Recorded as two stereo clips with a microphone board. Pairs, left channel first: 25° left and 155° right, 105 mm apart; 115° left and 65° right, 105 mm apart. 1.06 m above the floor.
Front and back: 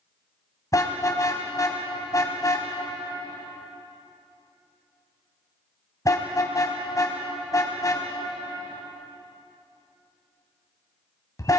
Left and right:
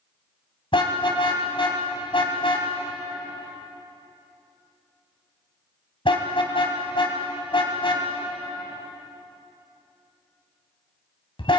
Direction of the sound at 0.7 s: 80° left.